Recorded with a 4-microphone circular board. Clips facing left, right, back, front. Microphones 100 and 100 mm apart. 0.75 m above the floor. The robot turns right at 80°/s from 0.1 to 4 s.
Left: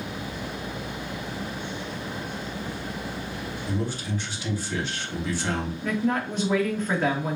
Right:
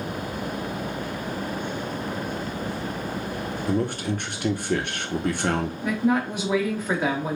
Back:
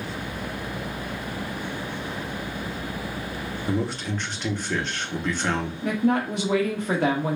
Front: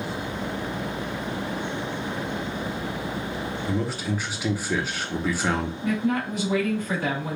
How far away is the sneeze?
I don't hear a sneeze.